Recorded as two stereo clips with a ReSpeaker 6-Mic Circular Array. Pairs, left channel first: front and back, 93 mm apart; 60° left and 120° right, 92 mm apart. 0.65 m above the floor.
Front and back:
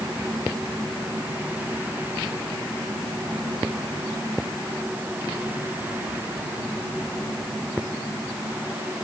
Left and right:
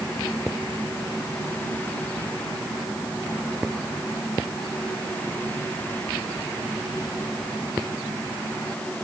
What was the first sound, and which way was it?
Only background noise.